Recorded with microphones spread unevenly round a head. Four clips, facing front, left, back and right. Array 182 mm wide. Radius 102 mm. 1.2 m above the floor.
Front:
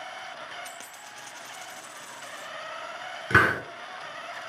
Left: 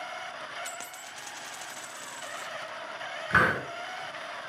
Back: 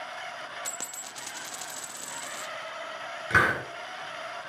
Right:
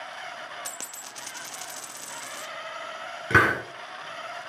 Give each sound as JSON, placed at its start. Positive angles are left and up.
{"t": 0.7, "sound": "a dropped coin", "azimuth_deg": -150, "distance_m": 0.7}
{"t": 3.3, "sound": "a hiss", "azimuth_deg": -60, "distance_m": 4.5}